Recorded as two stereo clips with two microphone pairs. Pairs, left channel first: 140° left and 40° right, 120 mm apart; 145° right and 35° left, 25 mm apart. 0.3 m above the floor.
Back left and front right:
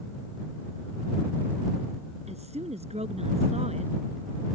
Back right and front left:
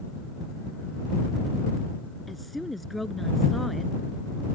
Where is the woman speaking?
55° right.